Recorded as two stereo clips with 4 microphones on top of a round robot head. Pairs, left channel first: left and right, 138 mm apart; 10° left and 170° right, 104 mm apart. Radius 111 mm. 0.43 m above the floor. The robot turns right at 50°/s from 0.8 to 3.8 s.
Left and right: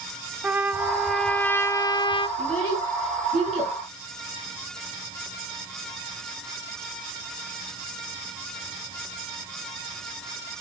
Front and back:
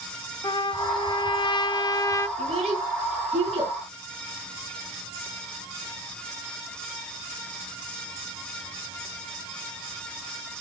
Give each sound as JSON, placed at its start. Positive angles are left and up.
{"t": 0.4, "sound": "a trumpet", "azimuth_deg": -15, "distance_m": 1.2}
{"t": 2.4, "sound": "a child speaking", "azimuth_deg": 160, "distance_m": 4.5}